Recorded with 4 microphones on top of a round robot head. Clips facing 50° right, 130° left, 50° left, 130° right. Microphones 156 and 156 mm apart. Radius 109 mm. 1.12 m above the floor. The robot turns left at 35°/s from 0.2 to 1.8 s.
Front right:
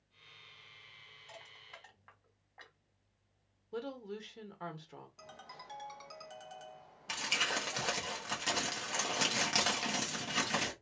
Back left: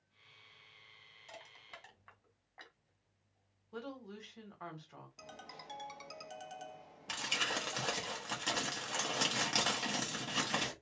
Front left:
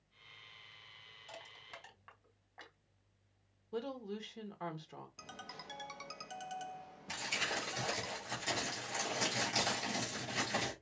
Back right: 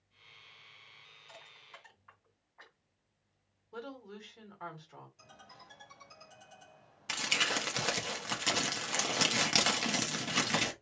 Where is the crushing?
80° left, 2 m; by 2.8 s 65° left, 2 m.